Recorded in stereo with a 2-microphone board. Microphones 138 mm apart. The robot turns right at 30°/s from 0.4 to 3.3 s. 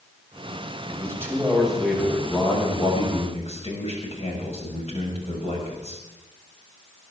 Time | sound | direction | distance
0.9 | a man speaking | 25° right | 6 m